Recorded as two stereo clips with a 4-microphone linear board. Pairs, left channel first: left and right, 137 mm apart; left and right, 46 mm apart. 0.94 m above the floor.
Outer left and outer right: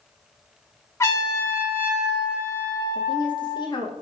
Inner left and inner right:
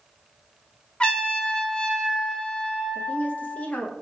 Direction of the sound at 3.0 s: 35° left (ahead or behind).